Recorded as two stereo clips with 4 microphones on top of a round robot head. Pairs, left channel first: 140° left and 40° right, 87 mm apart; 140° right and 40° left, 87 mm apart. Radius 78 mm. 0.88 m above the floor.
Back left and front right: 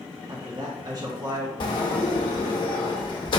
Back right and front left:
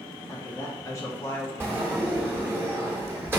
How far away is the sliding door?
About 1.3 m.